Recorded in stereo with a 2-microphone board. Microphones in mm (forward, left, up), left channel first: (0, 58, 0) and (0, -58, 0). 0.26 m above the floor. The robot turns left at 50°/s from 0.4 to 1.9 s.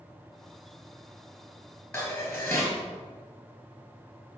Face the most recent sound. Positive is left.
turn(degrees=20)  # may be behind; listen again after turning